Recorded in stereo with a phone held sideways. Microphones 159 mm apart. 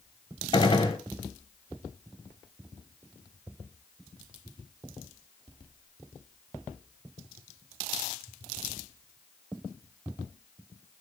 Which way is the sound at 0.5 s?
30° left (ahead or behind).